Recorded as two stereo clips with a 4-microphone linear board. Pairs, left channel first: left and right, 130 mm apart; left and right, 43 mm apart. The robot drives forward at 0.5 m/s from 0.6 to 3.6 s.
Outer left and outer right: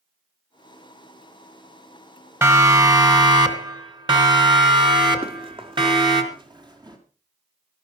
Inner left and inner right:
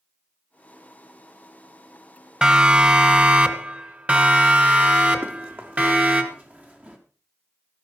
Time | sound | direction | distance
2.4 | a siren | 25° right (ahead or behind) | 2 m
5.2 | running footsteps | 45° right (ahead or behind) | 3.5 m